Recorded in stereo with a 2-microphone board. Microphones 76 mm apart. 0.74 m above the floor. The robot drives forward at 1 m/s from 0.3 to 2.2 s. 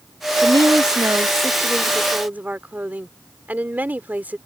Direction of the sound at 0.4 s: 55° right (ahead or behind).